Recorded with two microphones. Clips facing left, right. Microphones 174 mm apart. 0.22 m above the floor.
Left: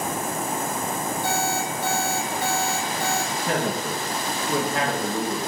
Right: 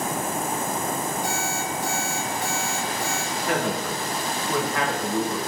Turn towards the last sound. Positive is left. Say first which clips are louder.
# right 4 dB
turn(degrees=20)  # may be behind; listen again after turning